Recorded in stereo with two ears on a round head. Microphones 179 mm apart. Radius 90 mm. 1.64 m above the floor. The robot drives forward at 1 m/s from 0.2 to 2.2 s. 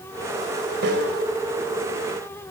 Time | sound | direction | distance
0.8 | a snare drum | 60° right (ahead or behind) | 4.5 m